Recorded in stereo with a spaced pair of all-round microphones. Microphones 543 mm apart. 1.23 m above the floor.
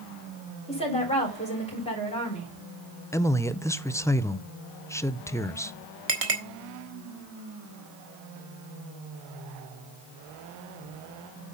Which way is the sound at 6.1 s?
75° right (ahead or behind).